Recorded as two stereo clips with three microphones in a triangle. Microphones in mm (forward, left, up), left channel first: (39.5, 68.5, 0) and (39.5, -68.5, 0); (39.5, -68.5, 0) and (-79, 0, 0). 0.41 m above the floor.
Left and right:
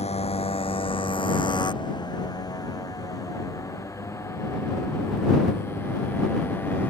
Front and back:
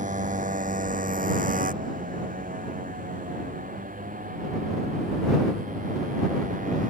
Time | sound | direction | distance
0.0 | a motorcycle | 130° left | ?